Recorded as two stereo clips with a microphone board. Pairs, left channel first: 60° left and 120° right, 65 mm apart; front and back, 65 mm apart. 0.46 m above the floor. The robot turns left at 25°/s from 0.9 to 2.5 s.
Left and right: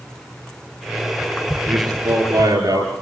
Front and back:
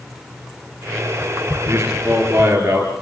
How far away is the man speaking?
About 9.5 m.